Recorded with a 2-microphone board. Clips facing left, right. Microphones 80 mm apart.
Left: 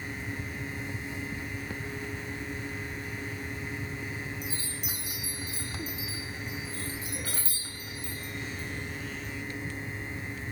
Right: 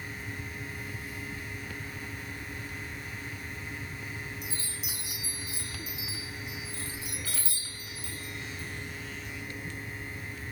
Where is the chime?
45° left (ahead or behind), 2 m.